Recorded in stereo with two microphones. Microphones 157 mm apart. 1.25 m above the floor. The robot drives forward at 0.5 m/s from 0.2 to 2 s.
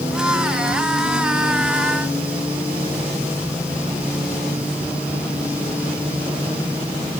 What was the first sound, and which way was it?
Only background noise.